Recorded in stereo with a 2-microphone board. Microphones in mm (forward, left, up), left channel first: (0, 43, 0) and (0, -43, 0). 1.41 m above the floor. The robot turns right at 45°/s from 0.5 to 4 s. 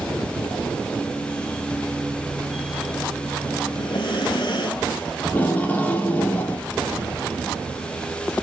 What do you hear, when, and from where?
3.7 s breathing: 70° left (ahead or behind), 3 m; by 5.0 s 60° left (ahead or behind), 3 m
5.2 s tape being pulled: 20° left (ahead or behind), 2.5 m